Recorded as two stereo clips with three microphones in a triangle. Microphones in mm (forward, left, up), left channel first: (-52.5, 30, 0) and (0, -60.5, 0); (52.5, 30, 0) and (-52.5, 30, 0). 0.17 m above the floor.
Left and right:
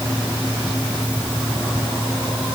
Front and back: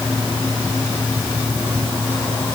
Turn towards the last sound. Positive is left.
No sound to turn to.